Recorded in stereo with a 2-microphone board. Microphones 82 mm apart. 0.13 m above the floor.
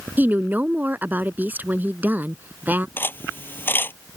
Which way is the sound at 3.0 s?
25° left (ahead or behind).